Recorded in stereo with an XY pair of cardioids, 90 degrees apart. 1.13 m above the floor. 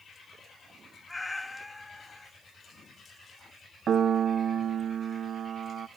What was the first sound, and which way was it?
A cat meowing, 10° left.